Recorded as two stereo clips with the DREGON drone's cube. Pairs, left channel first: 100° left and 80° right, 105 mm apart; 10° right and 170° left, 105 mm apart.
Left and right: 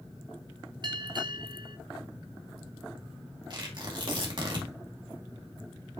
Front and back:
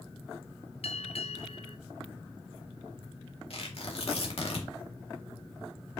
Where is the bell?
35° right, 0.7 m.